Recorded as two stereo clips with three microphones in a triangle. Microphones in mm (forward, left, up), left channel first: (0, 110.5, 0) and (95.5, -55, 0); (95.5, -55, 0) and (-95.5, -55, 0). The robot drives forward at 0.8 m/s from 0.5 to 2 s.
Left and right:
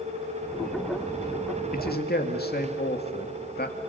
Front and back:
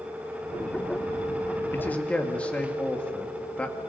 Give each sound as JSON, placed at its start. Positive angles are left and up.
{"t": 1.7, "sound": "a man speaking", "azimuth_deg": 80, "distance_m": 2.5}